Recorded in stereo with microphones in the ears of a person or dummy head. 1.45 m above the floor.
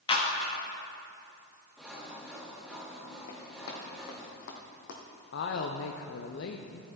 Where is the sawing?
Centre (ahead or behind), 1.1 m.